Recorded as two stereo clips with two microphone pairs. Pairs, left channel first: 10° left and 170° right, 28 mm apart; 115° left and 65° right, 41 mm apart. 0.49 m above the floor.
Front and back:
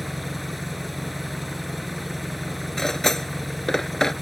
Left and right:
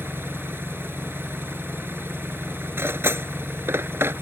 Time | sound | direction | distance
0.0 | an engine running | 85° right | ?
2.8 | cutlery clinking | 65° right | ?